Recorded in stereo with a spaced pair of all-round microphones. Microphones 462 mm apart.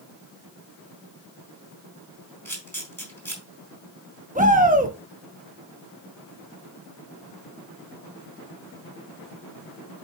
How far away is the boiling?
No boiling in this recording.